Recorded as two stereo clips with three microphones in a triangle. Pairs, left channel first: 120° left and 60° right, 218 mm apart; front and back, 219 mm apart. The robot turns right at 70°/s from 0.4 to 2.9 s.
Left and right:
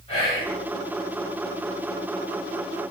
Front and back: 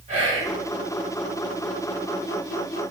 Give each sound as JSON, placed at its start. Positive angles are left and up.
{"t": 0.1, "sound": "whispering", "azimuth_deg": 160, "distance_m": 1.6}